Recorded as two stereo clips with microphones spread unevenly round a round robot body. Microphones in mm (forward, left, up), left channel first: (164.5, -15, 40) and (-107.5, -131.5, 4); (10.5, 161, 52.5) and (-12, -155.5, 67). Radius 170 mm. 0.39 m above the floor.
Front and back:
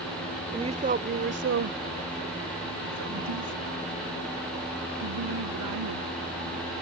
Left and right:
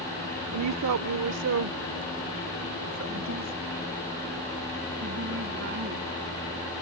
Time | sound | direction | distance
0.5 | a woman speaking | 95° right | ?